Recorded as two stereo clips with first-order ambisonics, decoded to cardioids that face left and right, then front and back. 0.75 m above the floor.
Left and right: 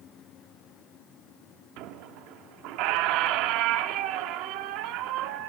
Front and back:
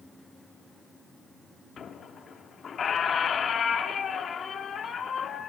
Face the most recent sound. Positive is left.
turn(degrees=-65)